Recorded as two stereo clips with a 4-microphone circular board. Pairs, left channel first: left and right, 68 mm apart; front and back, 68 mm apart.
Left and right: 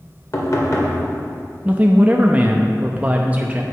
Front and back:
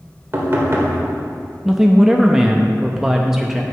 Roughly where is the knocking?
Behind left.